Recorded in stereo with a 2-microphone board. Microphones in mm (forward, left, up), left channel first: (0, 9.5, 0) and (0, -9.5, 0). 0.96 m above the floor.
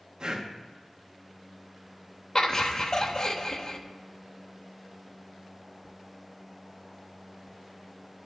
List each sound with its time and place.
0.2 s breathing: 40° right (ahead or behind), 0.9 m
2.4 s laughter: 40° left (ahead or behind), 0.8 m